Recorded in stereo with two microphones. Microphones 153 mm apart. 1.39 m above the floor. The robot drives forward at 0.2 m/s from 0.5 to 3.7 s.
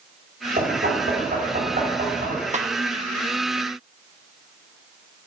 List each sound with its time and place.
0.6 s knocking: 70° right (ahead or behind), 3.5 m; by 2.4 s 65° right (ahead or behind), 3.5 m
2.5 s a snare drum: 50° right (ahead or behind), 1.1 m